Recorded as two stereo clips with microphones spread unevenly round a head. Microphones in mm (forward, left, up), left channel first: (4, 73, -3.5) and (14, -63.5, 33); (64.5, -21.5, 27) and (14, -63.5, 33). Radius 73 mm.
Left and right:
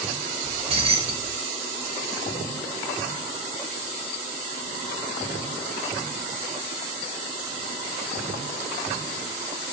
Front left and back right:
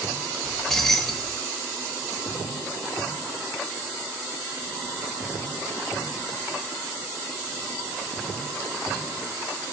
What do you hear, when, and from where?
0.4 s keys jangling: 45° right, 1.8 m